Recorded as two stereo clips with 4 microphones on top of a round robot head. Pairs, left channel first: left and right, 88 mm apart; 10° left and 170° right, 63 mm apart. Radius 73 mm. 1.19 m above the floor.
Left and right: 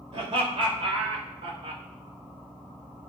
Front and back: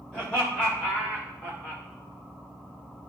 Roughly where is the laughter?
Ahead right.